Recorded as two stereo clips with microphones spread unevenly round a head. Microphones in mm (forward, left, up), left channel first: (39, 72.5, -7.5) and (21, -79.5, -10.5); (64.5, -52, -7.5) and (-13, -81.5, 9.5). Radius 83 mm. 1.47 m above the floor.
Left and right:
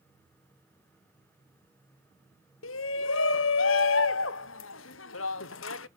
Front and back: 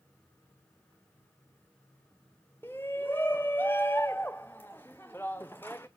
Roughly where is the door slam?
I don't hear a door slam.